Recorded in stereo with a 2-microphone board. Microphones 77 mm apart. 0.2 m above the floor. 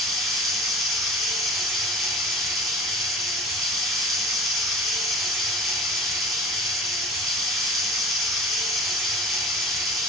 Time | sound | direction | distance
0.0 | running water | centre (ahead or behind) | 0.8 m